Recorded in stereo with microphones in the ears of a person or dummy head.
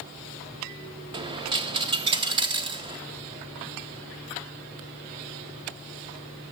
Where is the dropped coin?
25° right (ahead or behind), 0.6 m.